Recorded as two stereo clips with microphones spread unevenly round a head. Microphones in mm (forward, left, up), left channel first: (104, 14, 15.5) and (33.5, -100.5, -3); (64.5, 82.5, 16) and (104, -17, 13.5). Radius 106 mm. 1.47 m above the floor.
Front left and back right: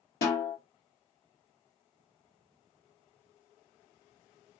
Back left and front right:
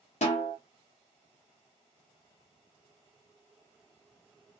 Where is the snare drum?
105° left, 1.0 m.